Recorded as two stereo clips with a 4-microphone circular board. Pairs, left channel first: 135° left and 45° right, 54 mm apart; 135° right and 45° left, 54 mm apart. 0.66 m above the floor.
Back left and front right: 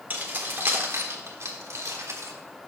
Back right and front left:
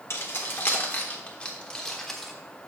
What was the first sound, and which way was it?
Keys jangling, 100° right.